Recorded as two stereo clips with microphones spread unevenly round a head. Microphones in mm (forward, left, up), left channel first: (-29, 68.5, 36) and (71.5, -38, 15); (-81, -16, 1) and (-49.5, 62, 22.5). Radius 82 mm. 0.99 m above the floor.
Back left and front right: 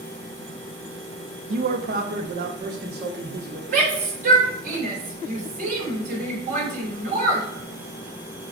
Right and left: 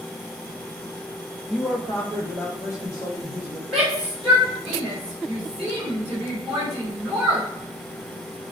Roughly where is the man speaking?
Ahead right.